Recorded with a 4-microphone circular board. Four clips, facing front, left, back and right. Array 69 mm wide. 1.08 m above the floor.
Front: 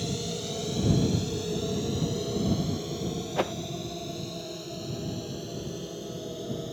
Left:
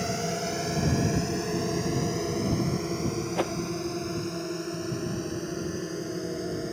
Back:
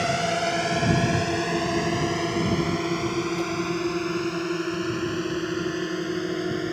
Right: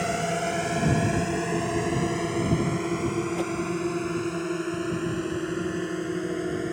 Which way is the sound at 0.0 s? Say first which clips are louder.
Right 4 dB, back 10 dB; 165° right.